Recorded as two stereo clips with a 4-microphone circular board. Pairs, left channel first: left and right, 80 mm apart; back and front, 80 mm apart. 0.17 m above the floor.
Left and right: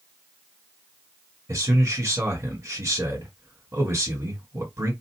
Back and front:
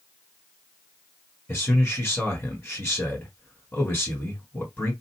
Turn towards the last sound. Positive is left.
turn(degrees=-120)